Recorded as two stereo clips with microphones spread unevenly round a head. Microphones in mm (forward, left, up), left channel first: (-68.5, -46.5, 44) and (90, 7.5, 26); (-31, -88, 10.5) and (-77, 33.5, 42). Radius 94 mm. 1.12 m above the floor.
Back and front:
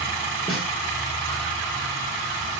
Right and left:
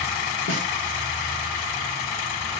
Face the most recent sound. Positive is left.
turn(degrees=-75)